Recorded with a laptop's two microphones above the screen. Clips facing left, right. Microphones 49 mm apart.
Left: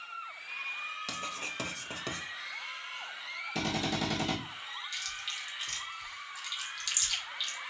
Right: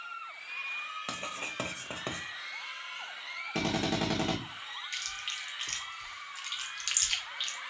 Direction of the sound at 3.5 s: 45° right (ahead or behind).